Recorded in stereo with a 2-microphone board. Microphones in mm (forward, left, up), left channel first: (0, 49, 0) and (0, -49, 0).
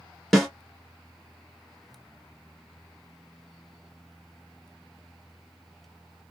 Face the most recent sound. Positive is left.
turn(degrees=5)  # may be behind; listen again after turning